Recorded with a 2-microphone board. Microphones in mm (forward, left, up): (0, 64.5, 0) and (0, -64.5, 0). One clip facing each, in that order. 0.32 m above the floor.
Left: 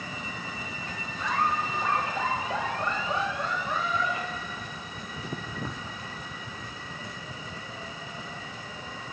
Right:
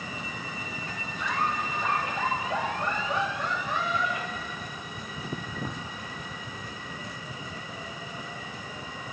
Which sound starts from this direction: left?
Laughter, at 1.2 s.